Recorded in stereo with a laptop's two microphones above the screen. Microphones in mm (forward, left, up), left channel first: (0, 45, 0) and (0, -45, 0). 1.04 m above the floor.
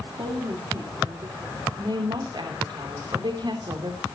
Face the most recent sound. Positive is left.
turn(degrees=-55)  # may be behind; listen again after turning